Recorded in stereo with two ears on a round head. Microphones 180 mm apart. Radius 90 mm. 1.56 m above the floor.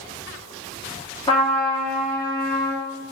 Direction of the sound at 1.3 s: 25° left (ahead or behind).